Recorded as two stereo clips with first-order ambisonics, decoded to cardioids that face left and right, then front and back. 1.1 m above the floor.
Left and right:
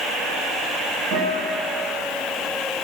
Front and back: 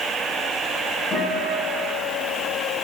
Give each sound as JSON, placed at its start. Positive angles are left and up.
{"t": 1.1, "sound": "a guitar", "azimuth_deg": -60, "distance_m": 7.0}